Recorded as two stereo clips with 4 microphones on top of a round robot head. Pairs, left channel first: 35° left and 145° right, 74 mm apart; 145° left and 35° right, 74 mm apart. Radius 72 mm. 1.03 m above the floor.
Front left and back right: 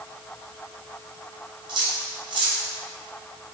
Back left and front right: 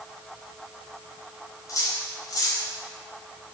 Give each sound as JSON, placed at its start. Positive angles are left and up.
{"t": 1.7, "sound": "cutlery clinking", "azimuth_deg": -170, "distance_m": 3.5}